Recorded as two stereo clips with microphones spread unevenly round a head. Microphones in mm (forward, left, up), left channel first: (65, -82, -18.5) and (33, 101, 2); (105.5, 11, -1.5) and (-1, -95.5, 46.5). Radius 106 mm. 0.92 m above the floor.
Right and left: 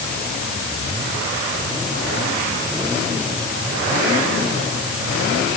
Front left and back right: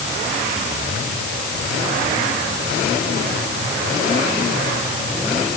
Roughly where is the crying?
I don't hear crying.